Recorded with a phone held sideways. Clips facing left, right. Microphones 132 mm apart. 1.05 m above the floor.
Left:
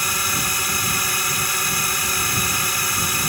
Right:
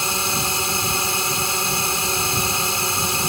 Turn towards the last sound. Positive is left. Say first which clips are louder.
# right 2 dB
turn(degrees=-25)  # may be behind; listen again after turning